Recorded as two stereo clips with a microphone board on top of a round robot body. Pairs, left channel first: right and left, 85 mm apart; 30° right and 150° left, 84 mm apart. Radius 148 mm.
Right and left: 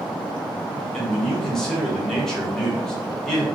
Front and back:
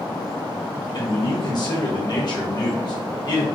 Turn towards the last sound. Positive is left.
turn(degrees=-5)